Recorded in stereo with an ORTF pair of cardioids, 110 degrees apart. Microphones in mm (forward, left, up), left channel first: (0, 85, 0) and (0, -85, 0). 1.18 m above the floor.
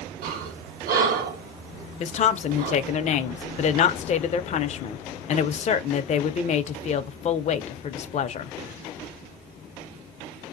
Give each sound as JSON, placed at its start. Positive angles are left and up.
{"t": 0.2, "sound": "breathing", "azimuth_deg": -65, "distance_m": 1.2}
{"t": 2.0, "sound": "a woman speaking", "azimuth_deg": 45, "distance_m": 0.5}